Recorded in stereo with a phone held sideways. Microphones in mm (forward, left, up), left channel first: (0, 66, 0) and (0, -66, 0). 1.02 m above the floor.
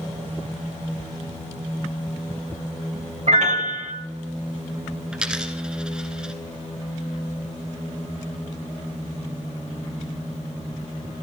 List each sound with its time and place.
3.3 s a piano: 65° right (ahead or behind), 2 m
5.1 s a dropped coin: 5° right (ahead or behind), 1.8 m